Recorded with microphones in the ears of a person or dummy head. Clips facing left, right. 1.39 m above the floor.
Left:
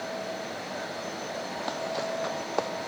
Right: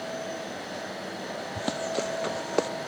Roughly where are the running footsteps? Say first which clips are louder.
Right 4 dB; right.